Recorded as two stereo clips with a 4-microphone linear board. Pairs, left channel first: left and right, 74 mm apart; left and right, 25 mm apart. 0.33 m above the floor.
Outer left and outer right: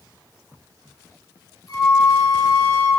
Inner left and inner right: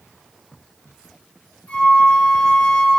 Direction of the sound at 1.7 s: 65° left (ahead or behind).